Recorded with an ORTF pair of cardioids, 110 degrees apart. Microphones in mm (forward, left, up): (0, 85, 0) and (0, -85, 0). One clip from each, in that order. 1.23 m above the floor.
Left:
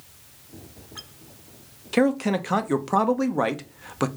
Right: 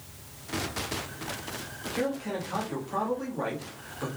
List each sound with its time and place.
1.9 s a man speaking: 70° left, 0.8 m